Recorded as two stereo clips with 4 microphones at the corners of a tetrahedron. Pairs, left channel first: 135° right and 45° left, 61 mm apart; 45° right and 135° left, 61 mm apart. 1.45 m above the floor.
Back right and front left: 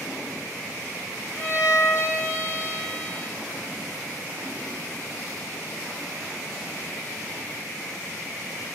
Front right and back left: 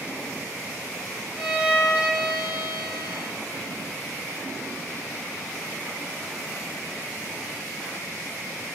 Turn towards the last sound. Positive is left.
turn(degrees=-155)